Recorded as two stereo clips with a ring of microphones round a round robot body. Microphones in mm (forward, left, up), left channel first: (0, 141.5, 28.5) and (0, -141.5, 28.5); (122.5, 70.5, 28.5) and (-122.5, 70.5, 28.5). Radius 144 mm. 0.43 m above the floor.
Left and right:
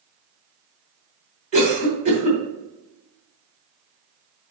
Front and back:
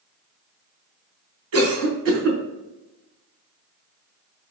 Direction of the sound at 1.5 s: 155° right.